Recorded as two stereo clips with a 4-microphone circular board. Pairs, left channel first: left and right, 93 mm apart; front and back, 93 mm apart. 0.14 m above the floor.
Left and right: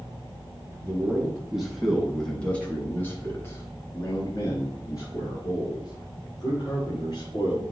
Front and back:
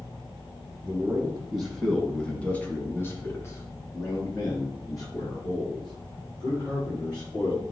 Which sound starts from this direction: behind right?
A man speaking, at 0.8 s.